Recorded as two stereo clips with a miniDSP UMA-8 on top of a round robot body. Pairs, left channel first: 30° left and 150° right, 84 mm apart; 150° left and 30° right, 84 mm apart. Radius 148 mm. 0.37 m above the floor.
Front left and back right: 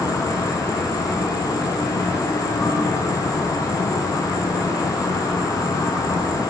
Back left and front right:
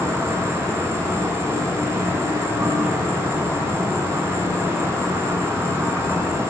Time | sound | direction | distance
0.0 | an insect | 15° left | 1.2 m